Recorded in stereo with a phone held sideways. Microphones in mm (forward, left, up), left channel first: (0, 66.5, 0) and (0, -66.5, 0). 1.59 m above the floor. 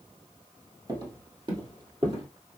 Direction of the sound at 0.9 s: 30° right (ahead or behind).